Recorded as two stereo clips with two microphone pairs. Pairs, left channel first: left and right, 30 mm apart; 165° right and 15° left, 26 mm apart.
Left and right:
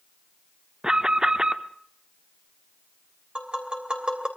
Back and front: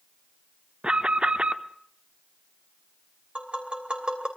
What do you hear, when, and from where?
0.8 s an alarm: 30° right, 0.8 m
3.4 s tapping: 35° right, 3 m